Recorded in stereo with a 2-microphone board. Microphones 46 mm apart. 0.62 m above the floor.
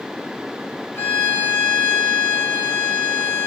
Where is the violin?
65° left (ahead or behind), 4 m.